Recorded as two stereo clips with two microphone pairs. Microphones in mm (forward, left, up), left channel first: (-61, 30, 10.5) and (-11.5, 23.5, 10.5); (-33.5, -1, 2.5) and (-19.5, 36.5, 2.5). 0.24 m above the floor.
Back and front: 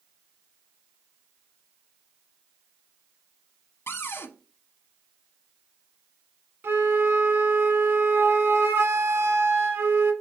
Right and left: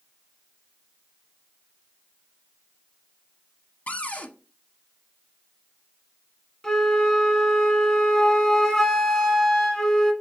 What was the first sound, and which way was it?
A cupboard door, 160° right.